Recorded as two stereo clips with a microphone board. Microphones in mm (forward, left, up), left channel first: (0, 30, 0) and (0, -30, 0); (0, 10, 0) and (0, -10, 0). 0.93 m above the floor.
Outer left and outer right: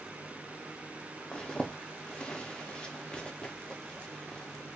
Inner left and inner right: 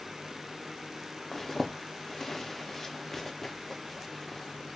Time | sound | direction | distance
1.3 | a zipper | 15° left (ahead or behind) | 0.5 m